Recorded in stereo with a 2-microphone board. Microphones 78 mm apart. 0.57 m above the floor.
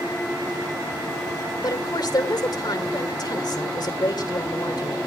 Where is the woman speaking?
60° left (ahead or behind), 2.5 m.